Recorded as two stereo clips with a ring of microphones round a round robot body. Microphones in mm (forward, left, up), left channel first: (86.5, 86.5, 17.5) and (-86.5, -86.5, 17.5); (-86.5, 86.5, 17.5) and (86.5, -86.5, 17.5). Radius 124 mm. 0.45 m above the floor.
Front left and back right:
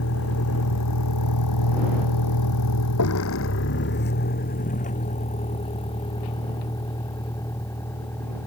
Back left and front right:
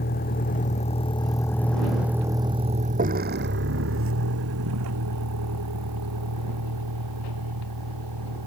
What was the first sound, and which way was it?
A vehicle, 80° left.